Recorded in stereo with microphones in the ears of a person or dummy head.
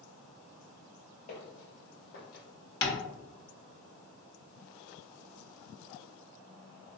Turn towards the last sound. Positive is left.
turn(degrees=30)  # may be behind; listen again after turning